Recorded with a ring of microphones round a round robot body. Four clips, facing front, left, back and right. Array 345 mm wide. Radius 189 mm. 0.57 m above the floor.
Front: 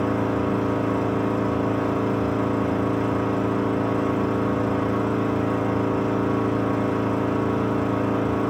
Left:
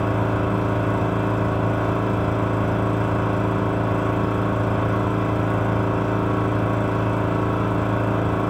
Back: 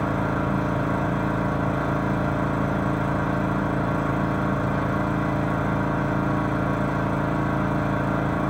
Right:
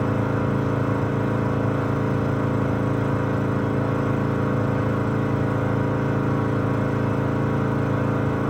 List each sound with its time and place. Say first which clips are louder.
0.0 s an engine running: left 1 dB, front 2 dB; 110° left, 3.5 m